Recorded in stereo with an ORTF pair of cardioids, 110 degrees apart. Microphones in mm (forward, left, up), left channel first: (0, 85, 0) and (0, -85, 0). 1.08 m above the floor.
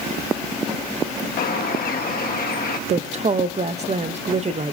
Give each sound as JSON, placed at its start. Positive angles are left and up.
{"t": 1.4, "sound": "a bird", "azimuth_deg": 60, "distance_m": 1.2}
{"t": 2.9, "sound": "a woman speaking", "azimuth_deg": -40, "distance_m": 0.7}